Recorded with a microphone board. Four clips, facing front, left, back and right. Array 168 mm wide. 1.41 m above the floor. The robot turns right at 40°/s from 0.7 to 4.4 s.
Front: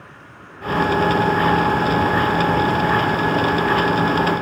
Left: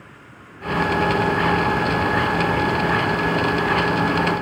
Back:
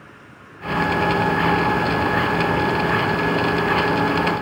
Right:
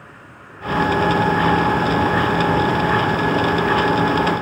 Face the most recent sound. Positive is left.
No sound to turn to.